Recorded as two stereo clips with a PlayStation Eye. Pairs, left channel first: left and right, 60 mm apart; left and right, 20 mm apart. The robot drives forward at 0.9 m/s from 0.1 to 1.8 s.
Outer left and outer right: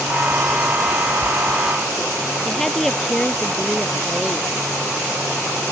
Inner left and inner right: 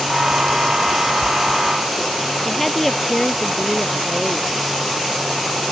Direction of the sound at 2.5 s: 5° left (ahead or behind).